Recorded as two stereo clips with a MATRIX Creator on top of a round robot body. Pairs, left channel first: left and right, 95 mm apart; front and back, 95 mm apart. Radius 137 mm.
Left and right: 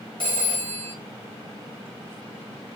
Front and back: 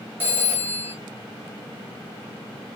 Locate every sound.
0.2 s a phone ringing: 115° right, 1.2 m